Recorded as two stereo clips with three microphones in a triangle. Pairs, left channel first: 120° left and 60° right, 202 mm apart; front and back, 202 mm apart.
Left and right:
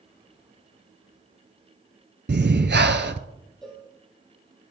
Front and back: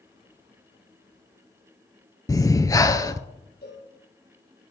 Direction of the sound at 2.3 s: 70° right.